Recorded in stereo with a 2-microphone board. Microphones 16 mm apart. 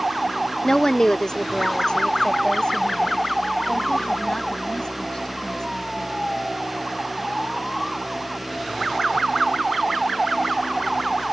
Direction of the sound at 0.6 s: 30° left (ahead or behind).